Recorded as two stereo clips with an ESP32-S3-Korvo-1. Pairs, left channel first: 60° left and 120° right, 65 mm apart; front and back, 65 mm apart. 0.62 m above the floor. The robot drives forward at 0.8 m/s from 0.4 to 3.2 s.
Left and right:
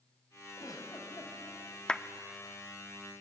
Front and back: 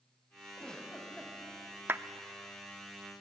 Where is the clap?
135° left, 0.6 m; by 2.0 s 145° left, 0.6 m.